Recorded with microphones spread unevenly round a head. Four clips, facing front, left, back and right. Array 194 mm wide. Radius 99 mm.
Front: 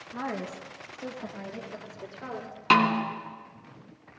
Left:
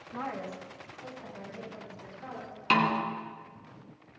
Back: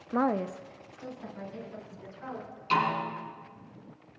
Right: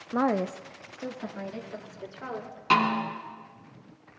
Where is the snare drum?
Straight ahead, 3.5 m.